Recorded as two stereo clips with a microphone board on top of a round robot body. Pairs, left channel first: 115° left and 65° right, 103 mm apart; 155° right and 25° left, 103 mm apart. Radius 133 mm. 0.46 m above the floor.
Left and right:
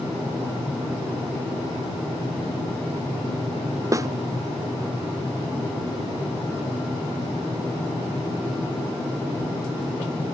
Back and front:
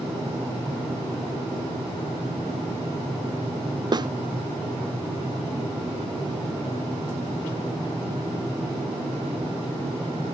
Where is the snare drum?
15° right.